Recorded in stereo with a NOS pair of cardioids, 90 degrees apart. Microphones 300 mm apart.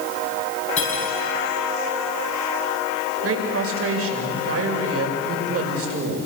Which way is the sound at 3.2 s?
50° right.